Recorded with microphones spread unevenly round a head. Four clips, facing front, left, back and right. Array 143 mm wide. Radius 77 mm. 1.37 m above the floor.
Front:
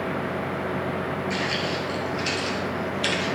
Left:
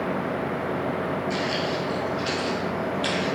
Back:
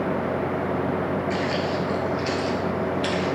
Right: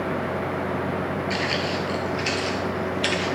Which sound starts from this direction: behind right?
Footsteps, at 1.3 s.